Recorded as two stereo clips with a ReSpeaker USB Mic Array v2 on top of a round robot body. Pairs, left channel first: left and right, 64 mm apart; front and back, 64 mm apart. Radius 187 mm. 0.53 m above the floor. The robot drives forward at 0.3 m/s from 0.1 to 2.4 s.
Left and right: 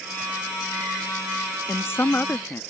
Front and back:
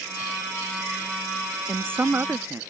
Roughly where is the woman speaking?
Behind left.